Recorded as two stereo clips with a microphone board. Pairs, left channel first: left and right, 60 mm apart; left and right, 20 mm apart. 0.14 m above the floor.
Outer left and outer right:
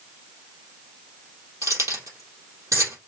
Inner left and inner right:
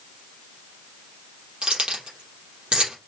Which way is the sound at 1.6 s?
60° right (ahead or behind).